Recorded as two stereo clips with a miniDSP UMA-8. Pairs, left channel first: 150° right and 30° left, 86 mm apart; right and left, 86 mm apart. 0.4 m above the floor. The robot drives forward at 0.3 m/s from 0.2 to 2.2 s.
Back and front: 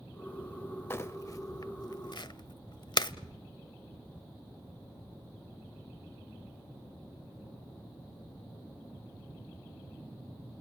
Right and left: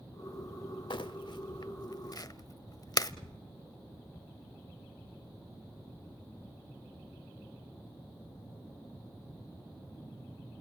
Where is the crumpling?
90° right, 0.6 m; by 3.1 s 125° right, 0.7 m.